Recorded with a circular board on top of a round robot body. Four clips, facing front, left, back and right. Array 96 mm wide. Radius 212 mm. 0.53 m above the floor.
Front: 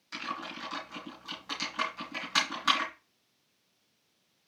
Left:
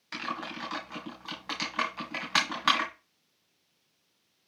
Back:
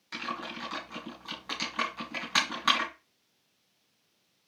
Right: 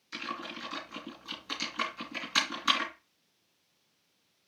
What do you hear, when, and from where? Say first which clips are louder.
0.1 s typing on a keyboard: left 3 dB, back 1 dB; 105° left, 2.5 m